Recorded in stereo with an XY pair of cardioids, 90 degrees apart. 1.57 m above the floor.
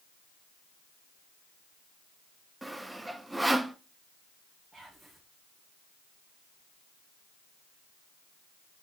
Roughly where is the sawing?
Ahead.